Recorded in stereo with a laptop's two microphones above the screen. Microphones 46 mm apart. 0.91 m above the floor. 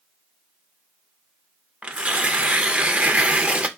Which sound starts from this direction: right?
Tearing paper, at 1.8 s.